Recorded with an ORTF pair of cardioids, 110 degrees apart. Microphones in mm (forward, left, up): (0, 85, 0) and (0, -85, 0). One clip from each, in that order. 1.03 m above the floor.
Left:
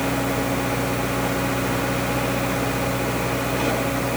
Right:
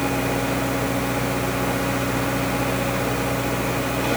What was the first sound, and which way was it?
Only background noise.